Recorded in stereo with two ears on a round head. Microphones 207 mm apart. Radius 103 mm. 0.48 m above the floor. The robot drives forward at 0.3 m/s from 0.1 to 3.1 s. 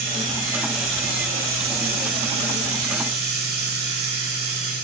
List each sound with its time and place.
0.0 s running water: 55° right (ahead or behind), 4.5 m; by 4.8 s 65° right (ahead or behind), 4 m